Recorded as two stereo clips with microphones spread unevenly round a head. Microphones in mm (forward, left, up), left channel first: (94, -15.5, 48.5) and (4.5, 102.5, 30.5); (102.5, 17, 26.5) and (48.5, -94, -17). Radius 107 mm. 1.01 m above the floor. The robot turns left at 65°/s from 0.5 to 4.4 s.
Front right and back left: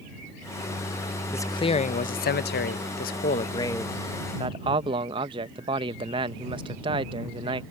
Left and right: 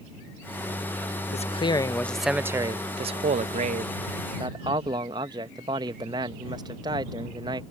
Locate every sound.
1.3 s a man speaking: 25° left; by 7.6 s 175° right